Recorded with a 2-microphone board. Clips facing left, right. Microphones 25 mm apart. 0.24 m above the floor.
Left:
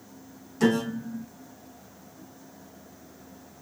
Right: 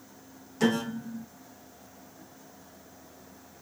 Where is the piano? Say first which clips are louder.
Left 3 dB; 5° right (ahead or behind), 1.3 m.